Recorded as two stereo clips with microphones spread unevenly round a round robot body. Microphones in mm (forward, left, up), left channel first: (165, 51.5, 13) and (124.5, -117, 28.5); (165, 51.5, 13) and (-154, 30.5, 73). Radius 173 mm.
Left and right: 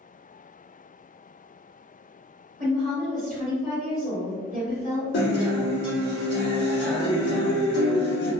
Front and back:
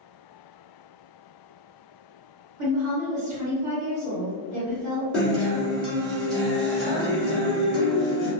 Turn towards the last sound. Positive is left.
turn(degrees=90)